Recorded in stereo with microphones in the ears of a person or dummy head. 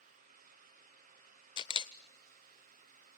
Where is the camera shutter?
25° left (ahead or behind), 0.5 m.